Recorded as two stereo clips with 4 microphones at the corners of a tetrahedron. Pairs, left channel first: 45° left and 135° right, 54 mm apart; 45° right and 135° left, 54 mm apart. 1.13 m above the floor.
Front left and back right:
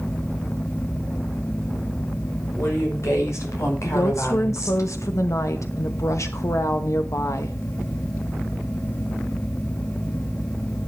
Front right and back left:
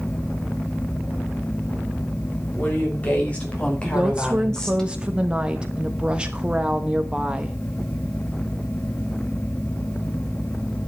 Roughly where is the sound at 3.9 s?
Ahead left.